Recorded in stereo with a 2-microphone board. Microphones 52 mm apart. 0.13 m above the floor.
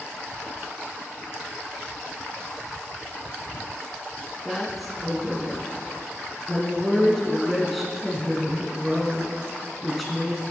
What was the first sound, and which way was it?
A woman speaking, centre (ahead or behind).